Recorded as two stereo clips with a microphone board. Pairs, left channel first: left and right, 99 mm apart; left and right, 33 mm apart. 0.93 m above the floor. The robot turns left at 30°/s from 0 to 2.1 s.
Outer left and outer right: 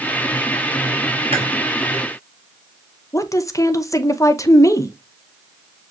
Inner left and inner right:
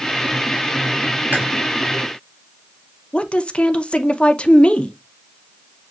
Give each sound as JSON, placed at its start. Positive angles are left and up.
{"t": 1.3, "sound": "chewing", "side_deg": -75, "distance_m": 4.5}
{"t": 3.1, "sound": "a woman speaking", "side_deg": 35, "distance_m": 0.6}